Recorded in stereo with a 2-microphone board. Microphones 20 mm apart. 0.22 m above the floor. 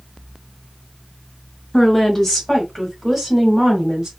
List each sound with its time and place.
1.7 s a woman speaking: 30° left (ahead or behind), 1.6 m; by 4.1 s 25° right (ahead or behind), 1.6 m